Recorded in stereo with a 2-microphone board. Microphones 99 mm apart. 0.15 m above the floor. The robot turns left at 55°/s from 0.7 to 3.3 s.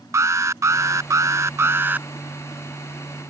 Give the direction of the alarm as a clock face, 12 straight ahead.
2 o'clock.